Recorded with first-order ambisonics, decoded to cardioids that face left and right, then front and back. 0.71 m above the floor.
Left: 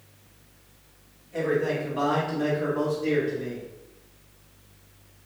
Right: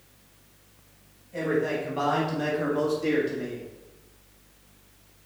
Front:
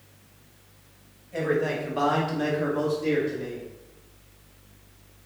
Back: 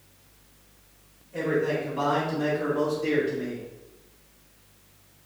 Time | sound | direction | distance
1.3 | a man speaking | 20° left | 1.3 m